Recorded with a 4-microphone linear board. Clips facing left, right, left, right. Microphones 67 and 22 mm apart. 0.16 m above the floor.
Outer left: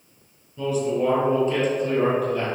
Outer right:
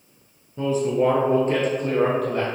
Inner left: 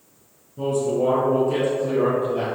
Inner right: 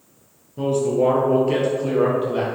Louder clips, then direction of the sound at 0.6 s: Outer right 2 dB, inner right 2 dB; 35° right (ahead or behind).